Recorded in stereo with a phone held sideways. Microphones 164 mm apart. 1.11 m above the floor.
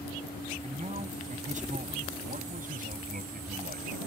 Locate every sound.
0.6 s a man speaking: 45° right (ahead or behind); by 4.0 s 65° right (ahead or behind)